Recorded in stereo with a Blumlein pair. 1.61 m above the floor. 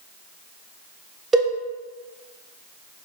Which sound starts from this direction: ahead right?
A cowbell, at 1.3 s.